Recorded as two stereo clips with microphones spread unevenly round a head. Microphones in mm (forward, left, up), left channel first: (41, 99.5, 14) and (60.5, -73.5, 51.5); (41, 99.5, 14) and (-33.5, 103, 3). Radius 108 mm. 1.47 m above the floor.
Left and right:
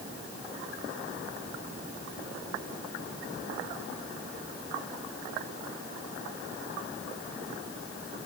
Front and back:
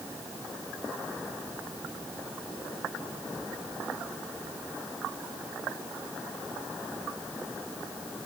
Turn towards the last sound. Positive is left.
No sound to turn to.